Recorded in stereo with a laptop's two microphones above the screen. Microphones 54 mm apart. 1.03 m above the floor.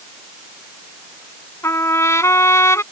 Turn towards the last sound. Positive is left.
turn(degrees=60)  # may be behind; listen again after turning